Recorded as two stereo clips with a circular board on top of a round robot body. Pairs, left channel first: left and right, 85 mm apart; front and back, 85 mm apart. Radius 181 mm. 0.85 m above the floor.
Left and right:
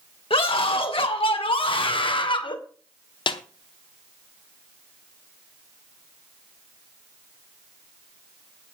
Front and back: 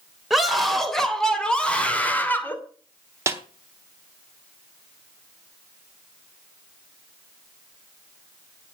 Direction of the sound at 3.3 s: 120° left.